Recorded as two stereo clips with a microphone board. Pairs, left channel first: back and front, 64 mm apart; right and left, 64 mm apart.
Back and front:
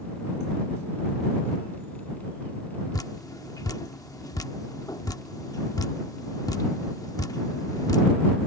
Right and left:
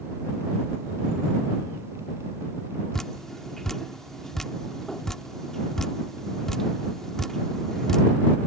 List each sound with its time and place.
2.9 s dripping: 175° right